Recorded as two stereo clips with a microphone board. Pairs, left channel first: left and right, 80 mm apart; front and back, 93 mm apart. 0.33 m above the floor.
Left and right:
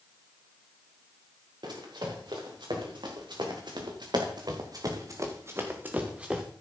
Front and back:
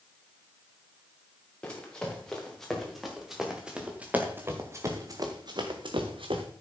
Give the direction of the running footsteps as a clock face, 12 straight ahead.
3 o'clock.